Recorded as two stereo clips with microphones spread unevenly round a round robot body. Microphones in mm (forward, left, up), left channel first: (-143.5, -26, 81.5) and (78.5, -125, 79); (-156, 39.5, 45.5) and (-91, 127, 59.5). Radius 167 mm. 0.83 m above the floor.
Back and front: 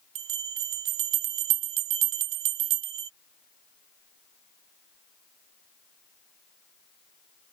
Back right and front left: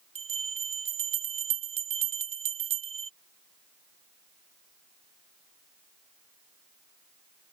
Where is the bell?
15° left.